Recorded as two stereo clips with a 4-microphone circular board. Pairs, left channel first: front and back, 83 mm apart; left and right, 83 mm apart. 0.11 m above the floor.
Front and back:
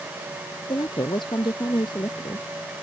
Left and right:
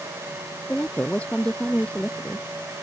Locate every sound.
0.7 s a woman speaking: 15° left